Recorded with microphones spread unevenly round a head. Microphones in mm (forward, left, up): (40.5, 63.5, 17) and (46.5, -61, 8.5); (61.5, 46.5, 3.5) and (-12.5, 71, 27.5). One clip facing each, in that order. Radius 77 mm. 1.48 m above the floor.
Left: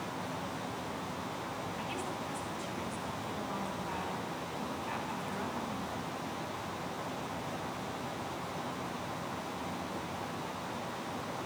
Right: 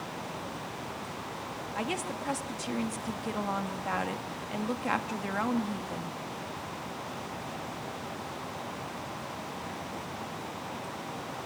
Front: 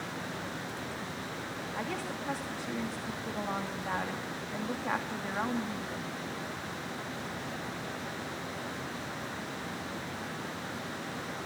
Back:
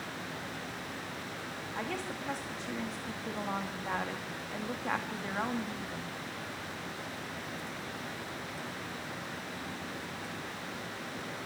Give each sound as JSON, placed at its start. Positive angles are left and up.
{"t": 1.8, "sound": "a woman speaking", "azimuth_deg": -110, "distance_m": 2.5}